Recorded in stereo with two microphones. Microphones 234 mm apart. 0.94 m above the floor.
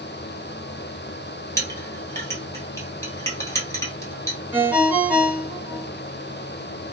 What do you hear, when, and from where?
1.6 s a clink: 10° left (ahead or behind), 1.3 m
4.5 s a ringtone: 5° right (ahead or behind), 1.0 m